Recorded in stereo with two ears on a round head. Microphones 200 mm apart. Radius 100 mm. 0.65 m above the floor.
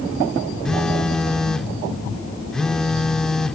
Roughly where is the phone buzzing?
Centre.